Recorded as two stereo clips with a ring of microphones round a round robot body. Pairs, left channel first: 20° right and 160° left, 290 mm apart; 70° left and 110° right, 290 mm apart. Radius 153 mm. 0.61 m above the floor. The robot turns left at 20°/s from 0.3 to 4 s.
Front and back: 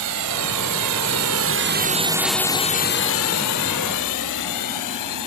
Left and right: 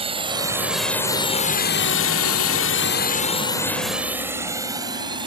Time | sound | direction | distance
0.0 | a drone | 175° left | ?